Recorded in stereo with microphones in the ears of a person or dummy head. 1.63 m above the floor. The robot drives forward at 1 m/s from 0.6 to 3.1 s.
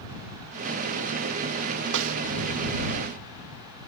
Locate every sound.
1.9 s a snare drum: 70° right (ahead or behind); by 2.1 s 75° right (ahead or behind)